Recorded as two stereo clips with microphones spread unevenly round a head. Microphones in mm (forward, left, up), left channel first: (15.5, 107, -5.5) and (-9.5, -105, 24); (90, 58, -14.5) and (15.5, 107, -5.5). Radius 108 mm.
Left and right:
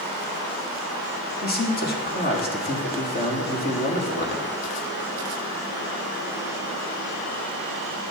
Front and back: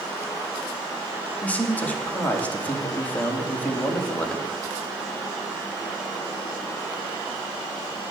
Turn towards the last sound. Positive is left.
turn(degrees=40)